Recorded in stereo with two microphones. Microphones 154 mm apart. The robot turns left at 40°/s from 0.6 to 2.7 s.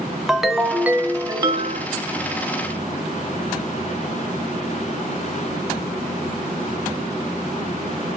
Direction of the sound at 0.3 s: Straight ahead.